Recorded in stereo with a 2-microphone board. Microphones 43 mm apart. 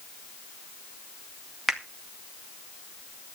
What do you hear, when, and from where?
1.7 s a finger snap: 10° right (ahead or behind), 1.9 m